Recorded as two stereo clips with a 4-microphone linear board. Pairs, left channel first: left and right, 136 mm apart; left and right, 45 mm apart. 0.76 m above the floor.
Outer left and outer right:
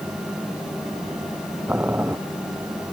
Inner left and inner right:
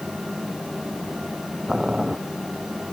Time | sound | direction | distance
1.7 | boiling | 15° right (ahead or behind) | ?